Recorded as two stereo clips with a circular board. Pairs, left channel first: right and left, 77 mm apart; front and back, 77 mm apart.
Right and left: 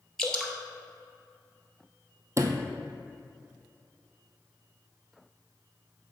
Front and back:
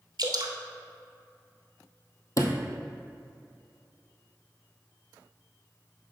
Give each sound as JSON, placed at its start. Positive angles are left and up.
{"t": 0.2, "sound": "dripping", "azimuth_deg": -175, "distance_m": 1.0}
{"t": 2.4, "sound": "a sliding door", "azimuth_deg": 40, "distance_m": 0.7}